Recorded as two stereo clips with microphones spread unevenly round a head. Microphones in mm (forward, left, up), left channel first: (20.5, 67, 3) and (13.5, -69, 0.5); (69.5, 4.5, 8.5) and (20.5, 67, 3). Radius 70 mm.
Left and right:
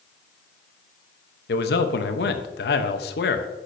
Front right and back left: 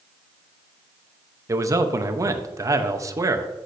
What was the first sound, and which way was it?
A man speaking, 80° left.